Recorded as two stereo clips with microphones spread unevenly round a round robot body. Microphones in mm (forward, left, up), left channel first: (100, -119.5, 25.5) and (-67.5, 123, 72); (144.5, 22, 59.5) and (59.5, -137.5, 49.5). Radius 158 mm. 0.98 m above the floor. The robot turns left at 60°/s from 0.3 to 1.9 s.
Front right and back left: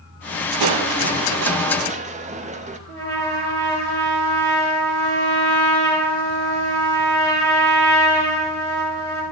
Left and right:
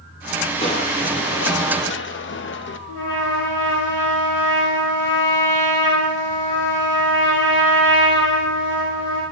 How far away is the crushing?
About 0.8 m.